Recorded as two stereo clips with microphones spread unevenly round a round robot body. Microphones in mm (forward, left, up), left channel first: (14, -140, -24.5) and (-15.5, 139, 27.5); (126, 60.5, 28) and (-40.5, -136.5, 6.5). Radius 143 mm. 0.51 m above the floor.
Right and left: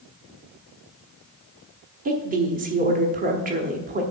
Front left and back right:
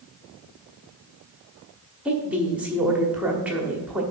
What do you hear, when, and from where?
2.0 s a woman speaking: 155° left, 1.0 m